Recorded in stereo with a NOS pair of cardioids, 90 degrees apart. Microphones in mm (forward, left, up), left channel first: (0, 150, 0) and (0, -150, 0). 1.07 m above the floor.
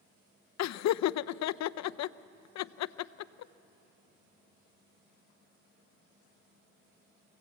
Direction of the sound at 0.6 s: 65° left.